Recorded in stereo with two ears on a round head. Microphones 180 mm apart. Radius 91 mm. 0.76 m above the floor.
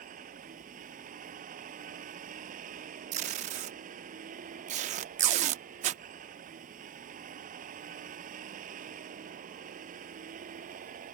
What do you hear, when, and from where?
0.0 s a vehicle: 40° right (ahead or behind)
3.1 s tape being pulled: 35° right (ahead or behind)